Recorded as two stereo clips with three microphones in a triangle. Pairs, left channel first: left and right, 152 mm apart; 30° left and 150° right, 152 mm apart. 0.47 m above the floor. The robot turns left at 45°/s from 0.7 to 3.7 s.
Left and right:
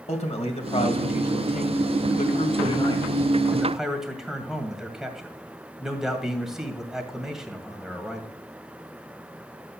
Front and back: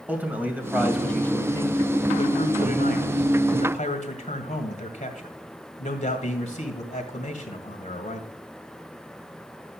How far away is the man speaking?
About 2 m.